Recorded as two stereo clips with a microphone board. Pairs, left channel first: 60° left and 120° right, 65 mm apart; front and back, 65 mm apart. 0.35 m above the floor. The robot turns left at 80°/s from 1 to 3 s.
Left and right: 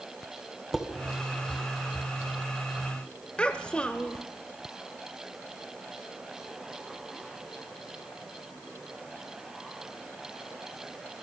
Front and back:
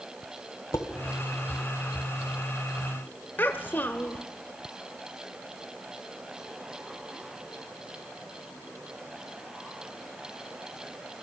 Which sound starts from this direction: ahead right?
Dishes clattering, at 0.7 s.